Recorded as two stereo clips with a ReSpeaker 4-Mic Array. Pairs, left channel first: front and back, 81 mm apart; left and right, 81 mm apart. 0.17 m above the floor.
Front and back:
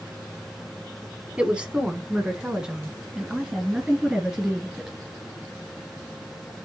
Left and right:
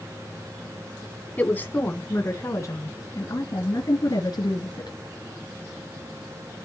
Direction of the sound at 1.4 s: 125° left.